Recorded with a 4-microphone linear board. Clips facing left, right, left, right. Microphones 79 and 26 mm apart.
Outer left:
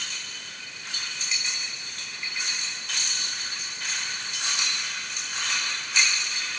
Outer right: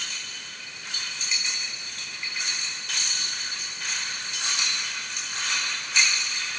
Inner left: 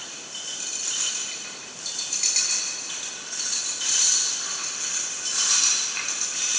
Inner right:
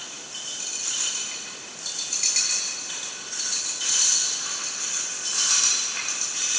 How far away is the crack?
No crack in this recording.